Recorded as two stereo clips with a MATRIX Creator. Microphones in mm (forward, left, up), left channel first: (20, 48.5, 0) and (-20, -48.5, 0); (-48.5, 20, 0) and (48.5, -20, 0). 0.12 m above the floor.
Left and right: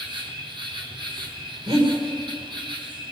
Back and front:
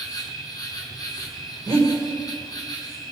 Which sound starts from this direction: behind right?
An insect, at 0.0 s.